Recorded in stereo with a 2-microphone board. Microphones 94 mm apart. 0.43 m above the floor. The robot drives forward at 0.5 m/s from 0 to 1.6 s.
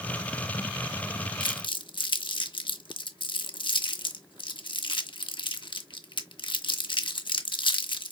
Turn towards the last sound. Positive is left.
turn(degrees=55)  # may be behind; listen again after turning